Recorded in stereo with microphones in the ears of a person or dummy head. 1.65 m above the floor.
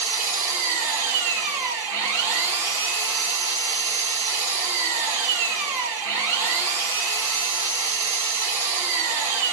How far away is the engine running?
About 1.1 m.